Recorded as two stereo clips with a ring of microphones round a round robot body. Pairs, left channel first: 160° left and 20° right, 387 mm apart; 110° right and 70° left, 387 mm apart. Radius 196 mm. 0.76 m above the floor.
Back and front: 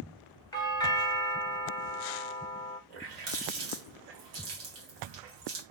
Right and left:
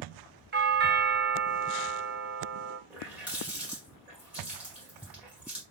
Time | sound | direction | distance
0.5 | a doorbell | 90° left | 0.9 m
2.9 | a running tap | 20° right | 1.7 m